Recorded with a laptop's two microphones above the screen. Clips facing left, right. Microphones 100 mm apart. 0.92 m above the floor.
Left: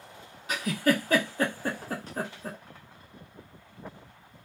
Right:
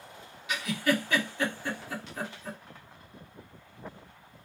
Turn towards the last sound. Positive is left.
turn(degrees=40)  # may be behind; listen again after turning